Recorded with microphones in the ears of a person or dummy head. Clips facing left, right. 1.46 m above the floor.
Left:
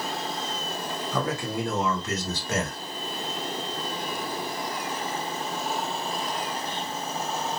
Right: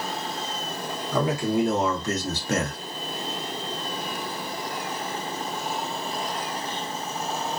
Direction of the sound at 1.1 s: 10° right (ahead or behind).